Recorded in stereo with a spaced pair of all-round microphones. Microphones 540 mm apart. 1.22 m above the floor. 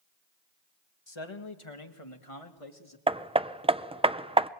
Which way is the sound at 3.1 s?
10° right (ahead or behind).